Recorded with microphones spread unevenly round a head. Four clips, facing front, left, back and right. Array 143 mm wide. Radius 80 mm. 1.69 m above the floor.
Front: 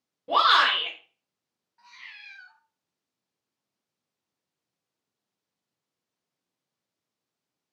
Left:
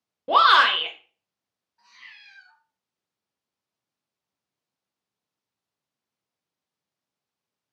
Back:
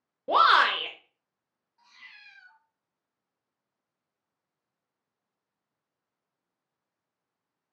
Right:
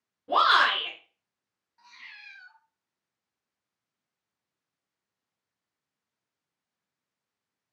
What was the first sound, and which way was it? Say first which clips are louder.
A shout: left 5 dB, even; 115° left.